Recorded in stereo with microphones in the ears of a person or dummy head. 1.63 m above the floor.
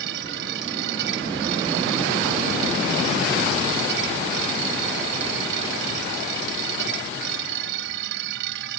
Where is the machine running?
70° right (ahead or behind).